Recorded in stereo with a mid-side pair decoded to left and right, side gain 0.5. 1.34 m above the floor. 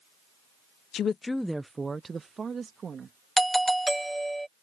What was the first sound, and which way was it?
A woman speaking, 60° left.